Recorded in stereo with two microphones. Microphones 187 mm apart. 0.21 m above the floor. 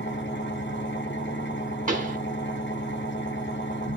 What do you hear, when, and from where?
0.0 s an engine running: 75° left (ahead or behind), 1.3 m
1.9 s a pop: 45° right (ahead or behind), 1.3 m